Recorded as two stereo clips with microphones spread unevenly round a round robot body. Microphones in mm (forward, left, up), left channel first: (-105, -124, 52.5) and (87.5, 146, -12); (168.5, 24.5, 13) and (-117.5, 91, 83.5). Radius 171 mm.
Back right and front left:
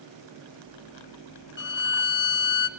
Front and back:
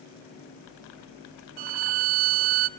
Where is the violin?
175° left, 0.6 m.